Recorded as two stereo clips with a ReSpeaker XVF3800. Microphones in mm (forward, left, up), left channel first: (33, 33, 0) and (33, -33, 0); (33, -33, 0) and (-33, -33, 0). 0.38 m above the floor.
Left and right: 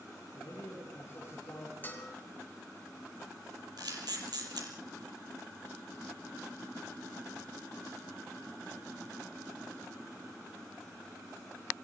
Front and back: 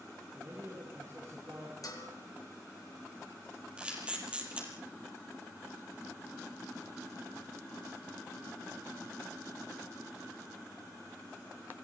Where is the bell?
25° left, 4 m.